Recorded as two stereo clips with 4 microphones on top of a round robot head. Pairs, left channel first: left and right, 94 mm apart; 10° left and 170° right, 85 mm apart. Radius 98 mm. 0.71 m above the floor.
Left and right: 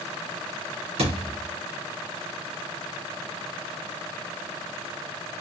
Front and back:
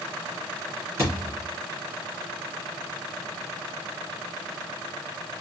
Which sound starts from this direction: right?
A thud, at 1.0 s.